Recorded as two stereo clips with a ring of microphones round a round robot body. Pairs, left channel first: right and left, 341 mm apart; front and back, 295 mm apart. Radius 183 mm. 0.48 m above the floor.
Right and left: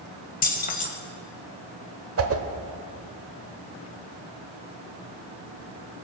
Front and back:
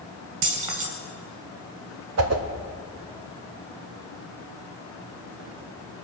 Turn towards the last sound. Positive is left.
turn(degrees=140)